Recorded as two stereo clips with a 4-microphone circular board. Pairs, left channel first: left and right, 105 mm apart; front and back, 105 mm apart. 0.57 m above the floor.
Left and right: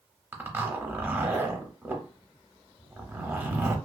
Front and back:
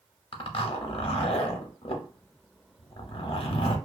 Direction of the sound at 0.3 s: 25° right.